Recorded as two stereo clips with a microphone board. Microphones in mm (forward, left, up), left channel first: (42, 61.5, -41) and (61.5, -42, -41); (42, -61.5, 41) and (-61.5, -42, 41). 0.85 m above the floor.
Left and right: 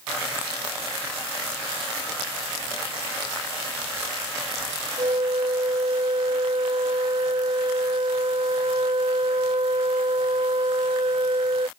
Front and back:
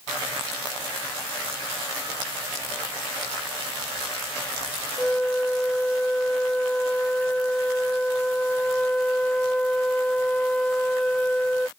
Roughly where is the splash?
No splash in this recording.